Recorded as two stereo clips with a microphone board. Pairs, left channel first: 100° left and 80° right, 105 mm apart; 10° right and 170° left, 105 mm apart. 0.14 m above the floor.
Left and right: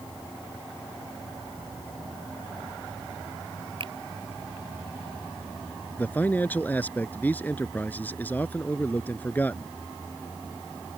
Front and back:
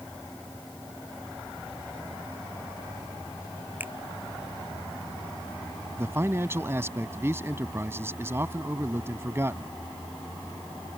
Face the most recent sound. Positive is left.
turn(degrees=145)